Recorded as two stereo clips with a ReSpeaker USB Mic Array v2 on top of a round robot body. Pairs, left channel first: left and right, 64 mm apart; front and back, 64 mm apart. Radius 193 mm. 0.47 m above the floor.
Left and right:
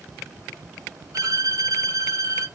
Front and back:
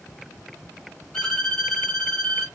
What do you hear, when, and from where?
1.1 s a violin: 75° right, 3 m